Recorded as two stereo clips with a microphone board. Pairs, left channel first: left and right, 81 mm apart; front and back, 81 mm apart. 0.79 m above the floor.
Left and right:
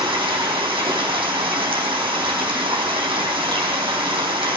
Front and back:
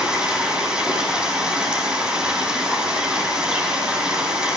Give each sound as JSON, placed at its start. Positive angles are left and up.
{"t": 0.0, "sound": "running water", "azimuth_deg": -100, "distance_m": 4.5}